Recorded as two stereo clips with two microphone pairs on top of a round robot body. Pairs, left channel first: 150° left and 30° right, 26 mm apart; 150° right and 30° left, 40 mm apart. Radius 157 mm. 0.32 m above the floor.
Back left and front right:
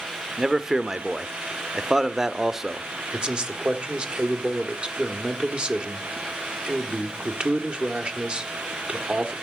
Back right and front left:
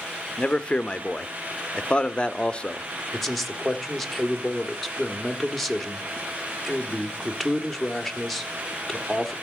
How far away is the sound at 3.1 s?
About 1.6 m.